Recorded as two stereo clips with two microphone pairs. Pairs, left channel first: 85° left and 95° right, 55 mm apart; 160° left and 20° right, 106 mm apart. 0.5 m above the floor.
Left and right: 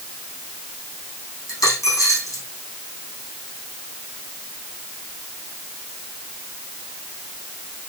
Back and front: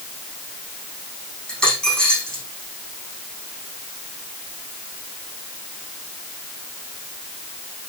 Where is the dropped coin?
75° left, 8 m.